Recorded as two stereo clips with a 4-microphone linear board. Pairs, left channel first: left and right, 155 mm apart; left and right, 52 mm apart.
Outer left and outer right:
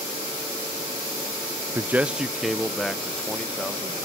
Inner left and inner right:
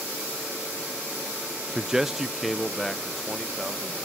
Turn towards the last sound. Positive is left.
turn(degrees=5)  # may be behind; listen again after turning